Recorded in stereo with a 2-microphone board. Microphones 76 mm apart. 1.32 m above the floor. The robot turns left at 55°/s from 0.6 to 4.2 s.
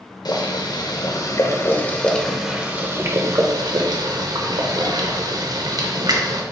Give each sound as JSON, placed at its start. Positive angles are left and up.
{"t": 0.2, "sound": "boiling", "azimuth_deg": 95, "distance_m": 0.7}